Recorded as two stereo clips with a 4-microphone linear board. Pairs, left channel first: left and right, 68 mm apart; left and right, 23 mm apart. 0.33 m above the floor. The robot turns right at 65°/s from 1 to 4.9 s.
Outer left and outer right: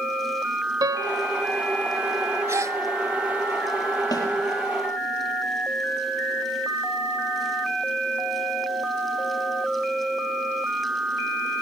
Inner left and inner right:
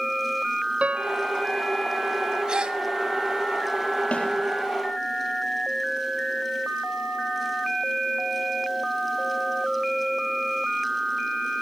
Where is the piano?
75° right (ahead or behind), 0.8 m; by 1.3 s 85° right, 0.8 m.